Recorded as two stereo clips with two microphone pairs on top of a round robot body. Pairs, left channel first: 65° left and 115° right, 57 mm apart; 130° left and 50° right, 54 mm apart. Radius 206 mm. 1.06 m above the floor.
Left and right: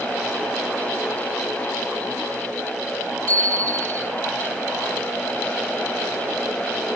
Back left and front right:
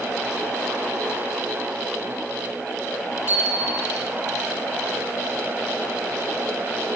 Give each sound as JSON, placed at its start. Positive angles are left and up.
{"t": 3.3, "sound": "a bicycle bell", "azimuth_deg": 5, "distance_m": 7.0}